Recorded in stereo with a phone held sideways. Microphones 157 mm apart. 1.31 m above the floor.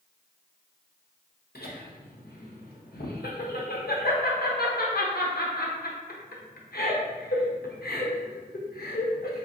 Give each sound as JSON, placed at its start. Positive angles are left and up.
{"t": 1.6, "sound": "laughter", "side_deg": 85, "distance_m": 0.9}